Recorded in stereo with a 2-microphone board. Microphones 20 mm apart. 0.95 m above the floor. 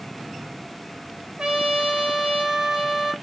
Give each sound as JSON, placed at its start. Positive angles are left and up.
{"t": 1.4, "sound": "a trumpet", "side_deg": -45, "distance_m": 1.0}